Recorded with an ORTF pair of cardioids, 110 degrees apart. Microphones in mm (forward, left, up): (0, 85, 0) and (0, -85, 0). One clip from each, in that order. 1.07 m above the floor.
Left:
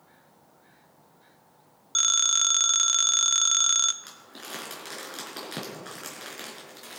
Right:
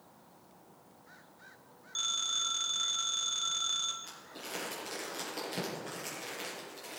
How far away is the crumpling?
About 4.5 m.